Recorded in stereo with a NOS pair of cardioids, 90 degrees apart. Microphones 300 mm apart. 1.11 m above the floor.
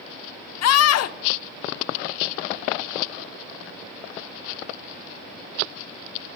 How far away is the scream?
About 0.7 m.